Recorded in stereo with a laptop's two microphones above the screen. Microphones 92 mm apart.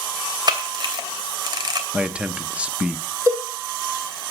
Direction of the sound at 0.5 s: 50° right (ahead or behind).